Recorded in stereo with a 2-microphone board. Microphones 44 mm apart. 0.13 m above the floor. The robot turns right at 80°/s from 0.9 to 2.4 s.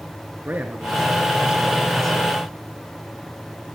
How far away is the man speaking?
About 1.4 m.